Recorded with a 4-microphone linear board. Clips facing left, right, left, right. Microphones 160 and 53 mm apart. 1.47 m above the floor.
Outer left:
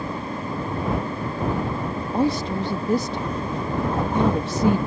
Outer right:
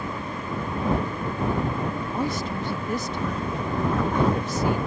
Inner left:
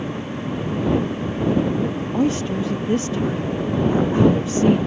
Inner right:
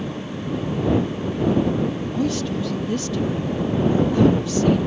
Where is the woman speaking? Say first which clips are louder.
Outer left 9 dB, inner left 5 dB; 35° left (ahead or behind).